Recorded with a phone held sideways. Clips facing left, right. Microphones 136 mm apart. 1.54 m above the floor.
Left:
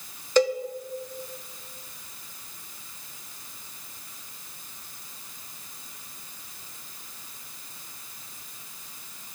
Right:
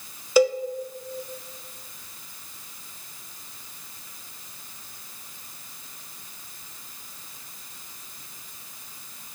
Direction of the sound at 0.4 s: 10° right (ahead or behind).